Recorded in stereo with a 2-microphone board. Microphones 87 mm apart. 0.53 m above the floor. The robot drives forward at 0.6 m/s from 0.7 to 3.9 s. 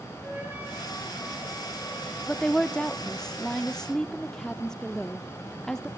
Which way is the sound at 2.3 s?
5° left (ahead or behind).